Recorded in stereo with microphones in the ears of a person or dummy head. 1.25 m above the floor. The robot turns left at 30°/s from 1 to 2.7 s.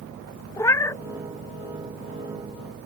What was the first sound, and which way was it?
A cat meowing, 10° left (ahead or behind).